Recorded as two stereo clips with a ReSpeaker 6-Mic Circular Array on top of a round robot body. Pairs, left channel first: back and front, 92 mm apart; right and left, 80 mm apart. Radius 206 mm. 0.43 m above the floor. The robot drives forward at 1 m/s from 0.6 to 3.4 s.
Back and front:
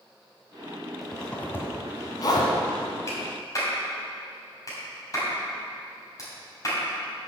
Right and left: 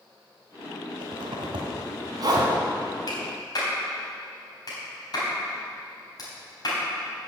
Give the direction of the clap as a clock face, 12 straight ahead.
4 o'clock.